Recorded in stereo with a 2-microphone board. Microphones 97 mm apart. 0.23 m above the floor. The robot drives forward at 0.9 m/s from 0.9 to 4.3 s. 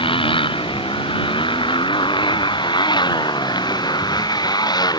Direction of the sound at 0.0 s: 60° left (ahead or behind).